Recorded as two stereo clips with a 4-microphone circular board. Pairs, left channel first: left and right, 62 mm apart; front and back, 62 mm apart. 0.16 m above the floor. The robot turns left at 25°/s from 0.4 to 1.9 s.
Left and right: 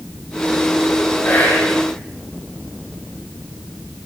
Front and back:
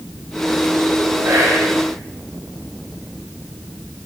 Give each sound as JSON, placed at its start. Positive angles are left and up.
{"t": 1.2, "sound": "whispering", "azimuth_deg": 140, "distance_m": 6.0}